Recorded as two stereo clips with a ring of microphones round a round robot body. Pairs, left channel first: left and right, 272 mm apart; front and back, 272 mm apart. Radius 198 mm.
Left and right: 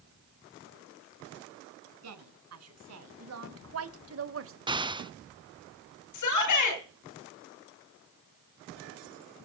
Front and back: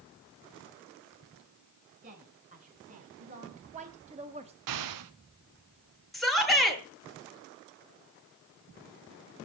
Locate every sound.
2.0 s a woman speaking: 110° right, 4 m; by 4.5 s 115° right, 1.8 m
4.7 s an explosion: 165° right, 1.1 m
6.1 s a shout: 90° left, 8.5 m